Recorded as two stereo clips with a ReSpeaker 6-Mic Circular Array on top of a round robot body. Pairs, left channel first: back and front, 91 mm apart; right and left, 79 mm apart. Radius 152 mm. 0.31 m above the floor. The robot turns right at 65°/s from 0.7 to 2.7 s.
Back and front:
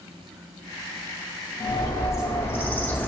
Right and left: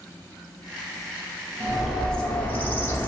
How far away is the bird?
About 0.9 m.